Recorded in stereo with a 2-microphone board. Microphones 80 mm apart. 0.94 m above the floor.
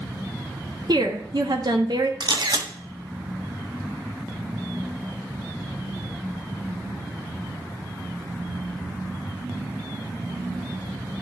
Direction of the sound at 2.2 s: 65° right (ahead or behind).